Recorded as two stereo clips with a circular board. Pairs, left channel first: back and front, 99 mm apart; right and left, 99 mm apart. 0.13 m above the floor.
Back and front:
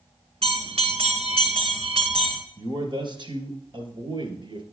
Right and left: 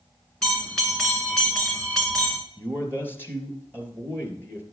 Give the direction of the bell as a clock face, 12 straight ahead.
12 o'clock.